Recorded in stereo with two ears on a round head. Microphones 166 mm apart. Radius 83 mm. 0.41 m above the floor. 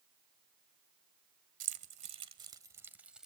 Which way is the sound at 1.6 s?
45° right (ahead or behind).